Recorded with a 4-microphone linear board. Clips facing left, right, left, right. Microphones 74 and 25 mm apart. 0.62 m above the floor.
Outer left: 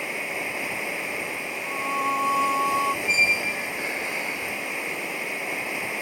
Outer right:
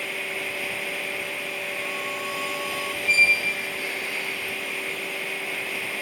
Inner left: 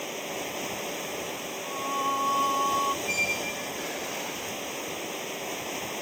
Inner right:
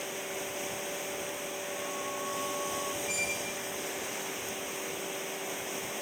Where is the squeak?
25° left (ahead or behind).